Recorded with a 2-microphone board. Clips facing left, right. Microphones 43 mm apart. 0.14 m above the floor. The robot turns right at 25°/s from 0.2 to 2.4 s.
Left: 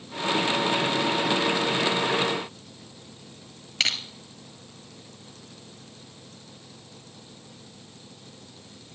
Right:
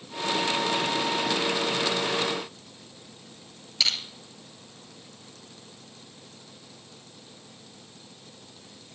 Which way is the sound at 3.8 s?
50° left (ahead or behind).